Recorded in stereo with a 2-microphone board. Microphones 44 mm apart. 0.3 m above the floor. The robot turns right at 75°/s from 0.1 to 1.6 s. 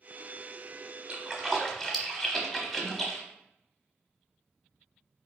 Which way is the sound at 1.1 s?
25° right (ahead or behind).